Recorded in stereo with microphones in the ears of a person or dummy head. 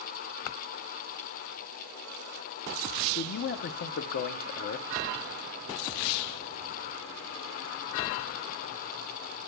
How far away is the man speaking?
About 0.6 m.